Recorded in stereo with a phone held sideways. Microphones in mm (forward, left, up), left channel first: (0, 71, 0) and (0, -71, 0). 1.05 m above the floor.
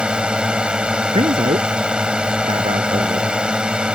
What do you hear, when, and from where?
0.0 s a drone: 5° right (ahead or behind)
1.1 s a man speaking: 45° right (ahead or behind)